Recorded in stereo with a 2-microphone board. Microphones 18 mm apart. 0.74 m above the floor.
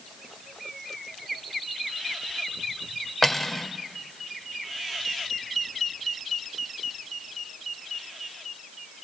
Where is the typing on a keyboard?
I don't hear typing on a keyboard.